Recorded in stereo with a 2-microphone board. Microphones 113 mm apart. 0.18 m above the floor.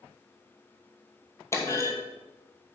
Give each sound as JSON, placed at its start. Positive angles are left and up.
{"t": 1.5, "sound": "a clunk", "side_deg": 25, "distance_m": 1.3}